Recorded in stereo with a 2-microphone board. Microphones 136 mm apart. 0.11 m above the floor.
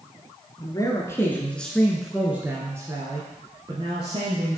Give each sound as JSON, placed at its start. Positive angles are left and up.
{"t": 0.6, "sound": "a man speaking", "side_deg": 30, "distance_m": 1.2}